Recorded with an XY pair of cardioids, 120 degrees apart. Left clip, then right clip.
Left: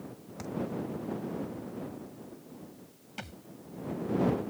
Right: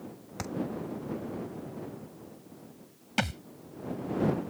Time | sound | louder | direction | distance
0.4 | a thud | right 3 dB | 45° right | ?
3.2 | a thud | right 13 dB | 70° right | ?